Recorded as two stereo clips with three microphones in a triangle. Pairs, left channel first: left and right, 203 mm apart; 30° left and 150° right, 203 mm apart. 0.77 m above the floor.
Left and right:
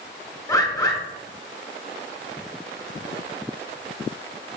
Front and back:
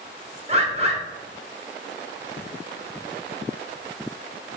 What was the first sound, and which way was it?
A bird, 160° left.